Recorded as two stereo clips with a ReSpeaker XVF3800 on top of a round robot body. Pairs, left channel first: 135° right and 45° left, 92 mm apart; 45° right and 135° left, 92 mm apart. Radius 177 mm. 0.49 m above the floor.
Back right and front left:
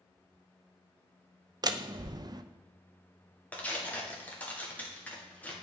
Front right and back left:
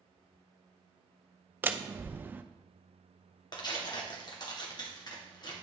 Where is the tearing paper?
65° right, 1.9 m.